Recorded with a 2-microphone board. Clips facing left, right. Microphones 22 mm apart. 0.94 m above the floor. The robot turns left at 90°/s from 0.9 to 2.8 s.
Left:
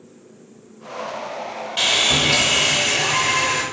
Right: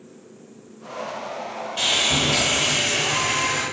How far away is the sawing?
About 1.7 m.